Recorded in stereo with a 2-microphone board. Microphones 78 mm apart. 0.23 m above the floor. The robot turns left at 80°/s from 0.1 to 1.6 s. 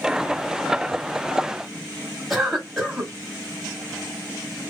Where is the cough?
Centre (ahead or behind), 1.0 m.